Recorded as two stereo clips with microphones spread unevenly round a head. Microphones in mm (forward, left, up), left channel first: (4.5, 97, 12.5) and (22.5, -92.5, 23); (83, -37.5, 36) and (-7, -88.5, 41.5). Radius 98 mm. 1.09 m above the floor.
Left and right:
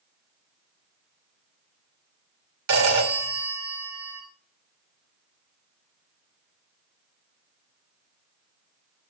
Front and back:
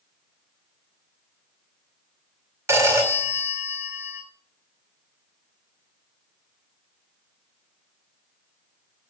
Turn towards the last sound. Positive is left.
turn(degrees=-90)